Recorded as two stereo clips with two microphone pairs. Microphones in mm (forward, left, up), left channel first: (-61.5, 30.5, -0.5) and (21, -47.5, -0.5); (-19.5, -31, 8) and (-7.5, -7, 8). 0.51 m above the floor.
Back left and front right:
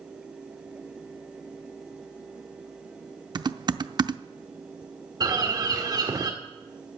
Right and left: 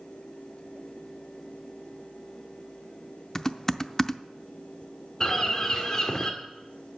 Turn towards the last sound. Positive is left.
turn(degrees=-70)